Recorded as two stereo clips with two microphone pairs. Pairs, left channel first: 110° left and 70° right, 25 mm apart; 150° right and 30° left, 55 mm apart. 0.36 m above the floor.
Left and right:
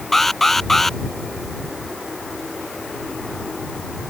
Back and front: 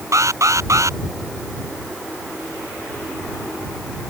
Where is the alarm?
30° left.